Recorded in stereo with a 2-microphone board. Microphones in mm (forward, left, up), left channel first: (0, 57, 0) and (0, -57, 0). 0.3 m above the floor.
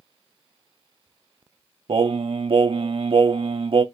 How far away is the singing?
About 0.5 m.